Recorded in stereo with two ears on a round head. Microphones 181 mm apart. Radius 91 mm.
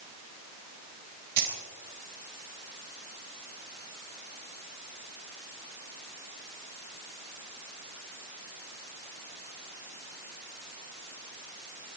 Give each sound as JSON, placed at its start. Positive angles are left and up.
{"t": 1.4, "sound": "keys jangling", "side_deg": -50, "distance_m": 3.5}